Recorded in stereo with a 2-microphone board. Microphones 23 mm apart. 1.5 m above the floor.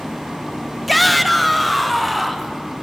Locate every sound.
0.9 s a shout: centre (ahead or behind), 1.0 m